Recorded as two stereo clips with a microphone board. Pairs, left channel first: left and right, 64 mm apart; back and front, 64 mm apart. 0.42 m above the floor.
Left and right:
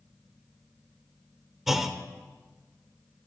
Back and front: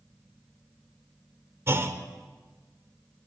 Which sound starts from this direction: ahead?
A clunk, at 1.7 s.